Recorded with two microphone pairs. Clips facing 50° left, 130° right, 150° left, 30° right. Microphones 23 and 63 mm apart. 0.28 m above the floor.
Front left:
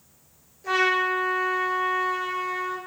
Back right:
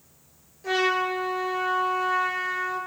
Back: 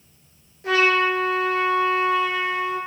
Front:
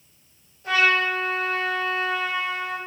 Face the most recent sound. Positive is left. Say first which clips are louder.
# front left 2 dB, back 2 dB
turn(degrees=150)